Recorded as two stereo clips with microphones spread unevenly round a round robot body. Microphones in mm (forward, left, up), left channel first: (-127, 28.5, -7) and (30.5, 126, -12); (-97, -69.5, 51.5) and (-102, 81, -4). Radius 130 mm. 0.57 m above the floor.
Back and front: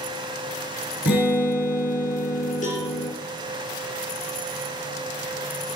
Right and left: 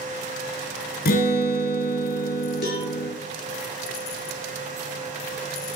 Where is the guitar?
95° right, 2.5 m.